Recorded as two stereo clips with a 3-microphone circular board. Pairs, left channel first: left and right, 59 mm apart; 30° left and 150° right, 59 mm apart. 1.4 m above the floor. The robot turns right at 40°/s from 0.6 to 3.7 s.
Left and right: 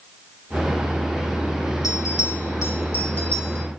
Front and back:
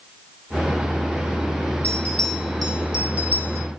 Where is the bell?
90° left, 2.5 m; by 3.7 s 165° left, 2.5 m.